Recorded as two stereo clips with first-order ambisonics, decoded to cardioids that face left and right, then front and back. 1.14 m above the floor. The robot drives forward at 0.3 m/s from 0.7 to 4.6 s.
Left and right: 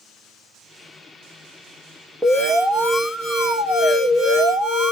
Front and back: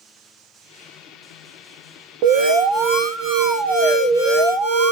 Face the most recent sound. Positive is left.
turn(degrees=180)